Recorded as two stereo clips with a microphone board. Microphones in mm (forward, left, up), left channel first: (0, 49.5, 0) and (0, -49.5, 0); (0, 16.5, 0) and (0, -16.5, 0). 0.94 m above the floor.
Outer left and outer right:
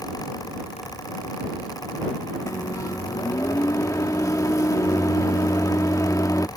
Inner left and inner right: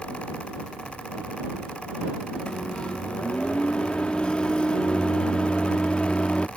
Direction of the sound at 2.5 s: 35° left (ahead or behind).